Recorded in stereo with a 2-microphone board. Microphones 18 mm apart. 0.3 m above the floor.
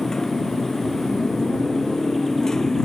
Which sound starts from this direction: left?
A motorcycle, at 0.0 s.